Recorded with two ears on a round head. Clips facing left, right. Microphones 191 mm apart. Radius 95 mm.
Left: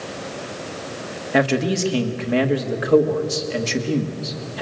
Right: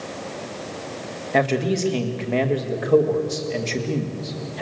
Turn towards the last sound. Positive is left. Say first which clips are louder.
# left 2 dB
turn(degrees=10)  # may be behind; listen again after turning